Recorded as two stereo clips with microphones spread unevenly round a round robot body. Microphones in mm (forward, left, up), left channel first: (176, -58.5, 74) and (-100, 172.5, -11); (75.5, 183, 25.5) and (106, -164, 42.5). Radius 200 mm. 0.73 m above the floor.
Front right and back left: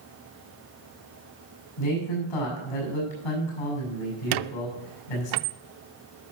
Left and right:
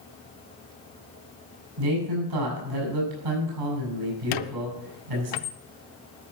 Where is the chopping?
I don't hear chopping.